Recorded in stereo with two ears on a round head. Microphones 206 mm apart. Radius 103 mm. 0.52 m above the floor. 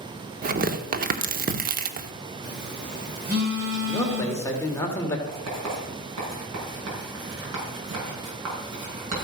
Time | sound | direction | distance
0.4 | tearing paper | 40° right (ahead or behind) | 1.0 m
2.4 | a phone buzzing | 45° right (ahead or behind) | 3.5 m
3.8 | a man speaking | 10° left (ahead or behind) | 2.0 m
5.3 | writing | 75° right (ahead or behind) | 6.5 m